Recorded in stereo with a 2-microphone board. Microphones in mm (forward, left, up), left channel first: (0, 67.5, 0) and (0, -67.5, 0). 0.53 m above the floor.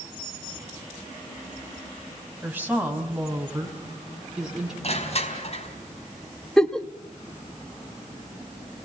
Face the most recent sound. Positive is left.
turn(degrees=5)  # may be behind; listen again after turning